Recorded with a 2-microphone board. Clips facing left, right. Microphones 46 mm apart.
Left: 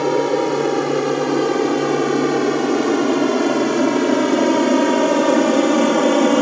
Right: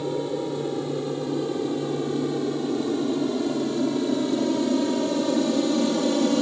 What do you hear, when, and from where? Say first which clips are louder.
0.0 s an aircraft: left 10 dB; 80° left; by 6.4 s 55° left (ahead or behind)